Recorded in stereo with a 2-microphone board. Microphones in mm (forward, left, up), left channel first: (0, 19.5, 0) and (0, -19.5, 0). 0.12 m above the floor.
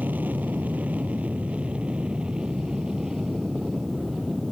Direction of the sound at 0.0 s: 50° right (ahead or behind).